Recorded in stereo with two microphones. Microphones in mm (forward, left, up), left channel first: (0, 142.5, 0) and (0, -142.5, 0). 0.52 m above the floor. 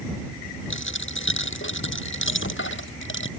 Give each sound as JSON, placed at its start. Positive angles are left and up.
{"t": 0.7, "sound": "a dropped coin", "side_deg": 45}